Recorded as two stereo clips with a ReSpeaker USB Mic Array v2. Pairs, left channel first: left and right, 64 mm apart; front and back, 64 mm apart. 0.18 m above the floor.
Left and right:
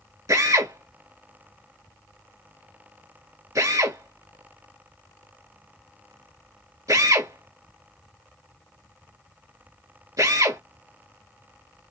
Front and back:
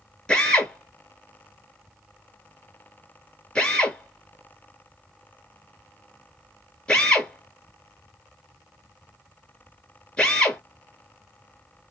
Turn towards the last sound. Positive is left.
turn(degrees=-70)